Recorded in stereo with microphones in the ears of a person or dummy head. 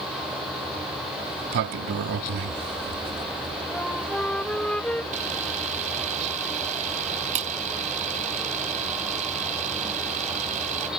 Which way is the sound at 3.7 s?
5° left (ahead or behind).